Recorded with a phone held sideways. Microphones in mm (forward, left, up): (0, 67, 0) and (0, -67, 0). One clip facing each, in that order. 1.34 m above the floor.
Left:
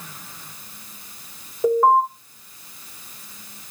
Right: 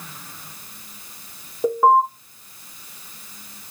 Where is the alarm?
10° right (ahead or behind), 4 m.